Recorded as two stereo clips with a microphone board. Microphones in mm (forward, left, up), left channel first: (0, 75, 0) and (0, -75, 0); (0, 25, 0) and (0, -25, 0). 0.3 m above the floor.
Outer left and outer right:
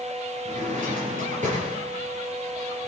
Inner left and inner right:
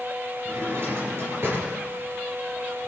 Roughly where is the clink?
No clink in this recording.